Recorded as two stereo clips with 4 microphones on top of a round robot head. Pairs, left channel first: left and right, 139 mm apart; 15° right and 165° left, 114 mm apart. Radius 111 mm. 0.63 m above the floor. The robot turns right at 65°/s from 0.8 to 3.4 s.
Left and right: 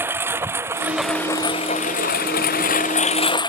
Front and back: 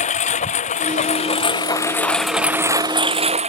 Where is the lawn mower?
15° right; by 3.5 s 145° left.